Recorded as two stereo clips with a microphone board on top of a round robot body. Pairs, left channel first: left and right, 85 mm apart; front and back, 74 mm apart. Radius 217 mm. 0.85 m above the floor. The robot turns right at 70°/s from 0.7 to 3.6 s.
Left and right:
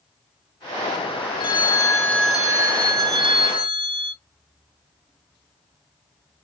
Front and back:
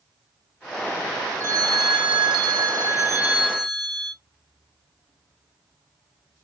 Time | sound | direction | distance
1.4 | a phone ringing | 120° left | 0.9 m